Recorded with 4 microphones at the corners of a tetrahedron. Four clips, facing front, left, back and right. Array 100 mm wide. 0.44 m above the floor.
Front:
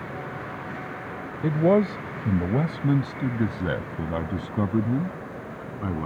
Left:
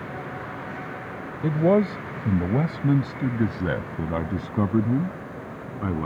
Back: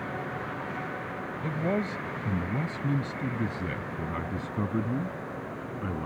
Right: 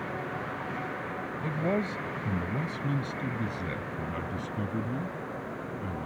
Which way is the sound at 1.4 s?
45° left.